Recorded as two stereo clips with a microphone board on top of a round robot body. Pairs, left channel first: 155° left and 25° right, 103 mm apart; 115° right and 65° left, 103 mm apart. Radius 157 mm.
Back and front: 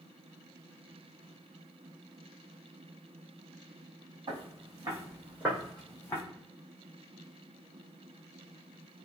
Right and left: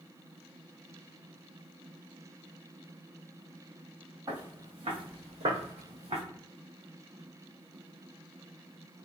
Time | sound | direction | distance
4.3 | footsteps | 20° left | 1.9 m